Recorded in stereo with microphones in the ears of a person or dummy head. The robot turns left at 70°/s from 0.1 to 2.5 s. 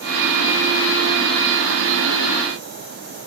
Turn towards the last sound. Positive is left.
No sound to turn to.